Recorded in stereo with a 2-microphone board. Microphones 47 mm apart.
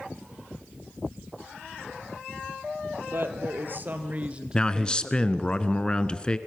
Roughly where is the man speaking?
Centre.